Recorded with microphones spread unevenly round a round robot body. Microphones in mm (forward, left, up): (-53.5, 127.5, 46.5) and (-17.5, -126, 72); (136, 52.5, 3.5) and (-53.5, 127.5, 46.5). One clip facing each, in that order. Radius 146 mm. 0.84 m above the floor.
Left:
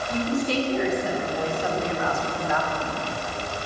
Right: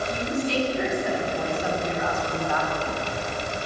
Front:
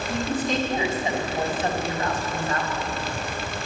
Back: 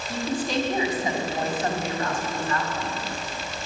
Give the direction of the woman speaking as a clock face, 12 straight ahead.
10 o'clock.